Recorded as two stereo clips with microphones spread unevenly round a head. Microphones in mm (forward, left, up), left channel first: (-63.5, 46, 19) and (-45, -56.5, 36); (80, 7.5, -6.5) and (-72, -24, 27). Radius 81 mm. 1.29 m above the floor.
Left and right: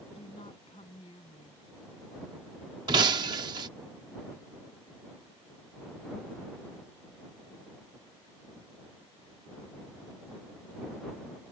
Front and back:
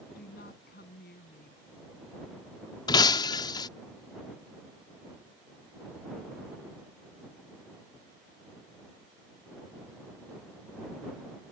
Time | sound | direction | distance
0.1 | a woman speaking | 45° left | ?
2.9 | breaking glass | 55° right | ?